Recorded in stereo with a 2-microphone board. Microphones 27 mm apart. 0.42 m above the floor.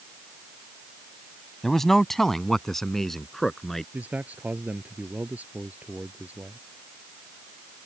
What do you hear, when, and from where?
1.6 s a man speaking: 10° left (ahead or behind)
3.9 s a man speaking: 80° right